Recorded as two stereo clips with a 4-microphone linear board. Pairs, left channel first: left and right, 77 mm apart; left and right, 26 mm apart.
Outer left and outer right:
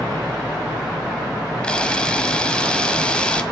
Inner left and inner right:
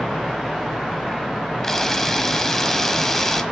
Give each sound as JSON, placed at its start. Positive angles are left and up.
{"t": 1.6, "sound": "a camera shutter", "side_deg": 15, "distance_m": 1.6}